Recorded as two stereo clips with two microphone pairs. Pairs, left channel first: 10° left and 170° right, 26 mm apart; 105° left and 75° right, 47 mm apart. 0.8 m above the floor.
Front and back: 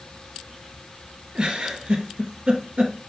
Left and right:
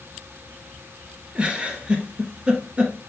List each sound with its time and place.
1.4 s a giggle: 135° right, 0.8 m